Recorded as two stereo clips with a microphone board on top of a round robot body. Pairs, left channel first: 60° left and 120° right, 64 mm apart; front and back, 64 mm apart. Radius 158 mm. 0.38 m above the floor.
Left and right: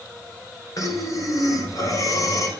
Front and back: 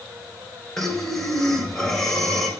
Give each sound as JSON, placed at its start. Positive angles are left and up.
{"t": 0.8, "sound": "breathing", "azimuth_deg": 85, "distance_m": 2.0}